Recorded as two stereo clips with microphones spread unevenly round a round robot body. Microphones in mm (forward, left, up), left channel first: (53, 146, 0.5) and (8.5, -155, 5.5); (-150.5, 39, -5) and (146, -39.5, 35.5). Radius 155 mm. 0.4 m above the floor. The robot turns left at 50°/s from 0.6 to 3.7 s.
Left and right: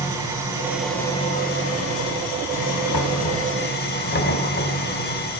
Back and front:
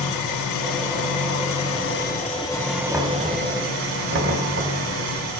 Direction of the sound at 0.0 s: 175° right.